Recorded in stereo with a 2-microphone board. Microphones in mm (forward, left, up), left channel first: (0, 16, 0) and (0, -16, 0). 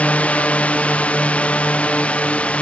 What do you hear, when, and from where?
0.0 s a drone: 40° left (ahead or behind); by 2.6 s 35° left (ahead or behind)